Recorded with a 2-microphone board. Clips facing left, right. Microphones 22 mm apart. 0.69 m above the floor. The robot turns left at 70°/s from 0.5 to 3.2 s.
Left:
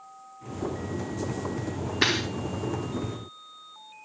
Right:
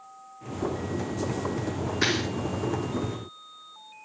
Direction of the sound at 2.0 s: 80° left.